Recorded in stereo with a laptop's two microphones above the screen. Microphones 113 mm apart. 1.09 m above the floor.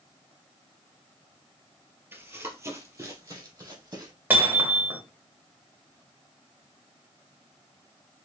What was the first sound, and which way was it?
Running footsteps, 20° right (ahead or behind).